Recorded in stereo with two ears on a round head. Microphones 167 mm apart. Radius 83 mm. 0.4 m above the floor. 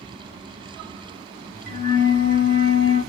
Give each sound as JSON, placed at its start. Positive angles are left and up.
{"t": 1.7, "sound": "a flute", "side_deg": -45, "distance_m": 2.5}